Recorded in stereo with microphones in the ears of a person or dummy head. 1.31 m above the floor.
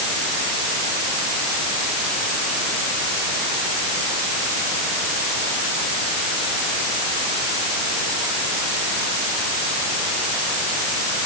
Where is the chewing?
I don't hear chewing.